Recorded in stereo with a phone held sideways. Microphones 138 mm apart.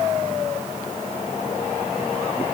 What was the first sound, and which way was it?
Only background noise.